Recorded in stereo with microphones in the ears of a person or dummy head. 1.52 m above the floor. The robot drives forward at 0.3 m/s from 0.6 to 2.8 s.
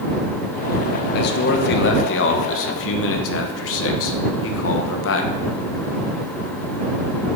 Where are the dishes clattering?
No dishes clattering in this recording.